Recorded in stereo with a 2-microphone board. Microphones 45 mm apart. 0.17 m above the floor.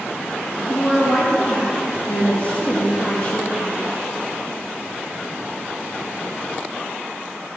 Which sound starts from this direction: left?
A woman speaking, at 0.7 s.